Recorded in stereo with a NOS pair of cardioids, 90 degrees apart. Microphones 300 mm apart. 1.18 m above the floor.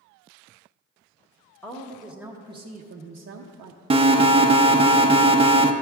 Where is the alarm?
20° right, 0.6 m.